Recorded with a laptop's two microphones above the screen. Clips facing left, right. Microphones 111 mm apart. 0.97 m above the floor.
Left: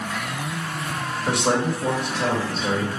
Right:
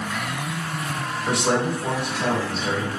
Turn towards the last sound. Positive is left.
turn(degrees=60)  # may be behind; listen again after turning